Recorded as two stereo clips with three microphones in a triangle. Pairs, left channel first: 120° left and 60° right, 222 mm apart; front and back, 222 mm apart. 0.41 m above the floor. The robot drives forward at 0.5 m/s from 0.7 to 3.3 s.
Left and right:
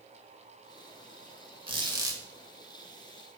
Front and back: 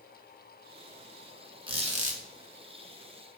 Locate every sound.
1.7 s a squeak: 120° right, 1.0 m; by 2.2 s 135° right, 1.2 m